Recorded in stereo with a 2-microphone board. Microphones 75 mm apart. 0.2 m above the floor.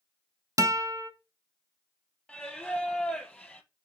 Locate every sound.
0.6 s a guitar: 50° right (ahead or behind), 0.6 m
2.3 s singing: 10° left (ahead or behind), 1.1 m